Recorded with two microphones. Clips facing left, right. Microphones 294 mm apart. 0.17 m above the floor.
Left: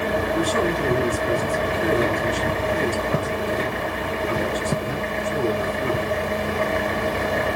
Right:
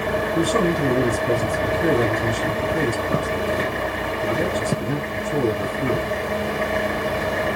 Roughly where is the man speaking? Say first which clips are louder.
Right 5 dB; right.